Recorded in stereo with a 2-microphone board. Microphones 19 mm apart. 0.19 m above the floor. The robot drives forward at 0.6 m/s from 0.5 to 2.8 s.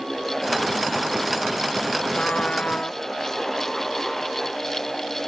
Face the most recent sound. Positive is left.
turn(degrees=85)